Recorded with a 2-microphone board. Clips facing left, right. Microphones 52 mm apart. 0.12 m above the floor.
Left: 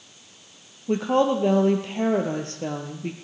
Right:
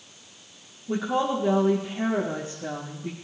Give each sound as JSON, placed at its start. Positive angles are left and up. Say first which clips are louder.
{"t": 0.9, "sound": "a woman speaking", "louder": "left 4 dB", "side_deg": 65, "distance_m": 2.5}